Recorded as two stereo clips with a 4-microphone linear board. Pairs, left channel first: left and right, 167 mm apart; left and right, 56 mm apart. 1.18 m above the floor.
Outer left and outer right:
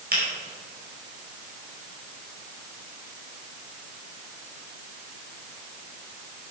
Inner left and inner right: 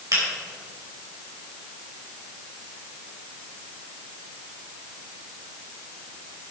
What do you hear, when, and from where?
0.1 s a finger snap: 65° right (ahead or behind), 5 m